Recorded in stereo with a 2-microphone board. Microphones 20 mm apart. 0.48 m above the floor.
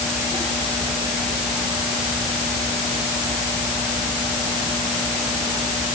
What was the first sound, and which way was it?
Only background noise.